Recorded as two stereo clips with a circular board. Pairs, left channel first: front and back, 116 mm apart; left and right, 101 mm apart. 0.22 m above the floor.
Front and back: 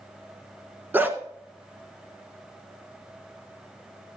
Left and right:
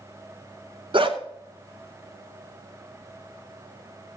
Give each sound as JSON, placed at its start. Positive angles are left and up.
{"t": 0.9, "sound": "a dog barking", "azimuth_deg": -110, "distance_m": 1.2}